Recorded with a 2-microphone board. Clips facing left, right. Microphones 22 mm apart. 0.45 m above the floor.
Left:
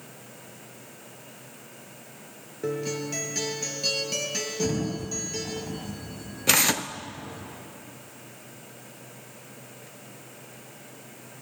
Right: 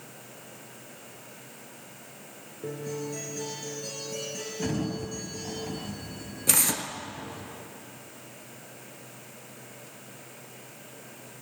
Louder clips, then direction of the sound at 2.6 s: Left 5 dB; 60° left (ahead or behind).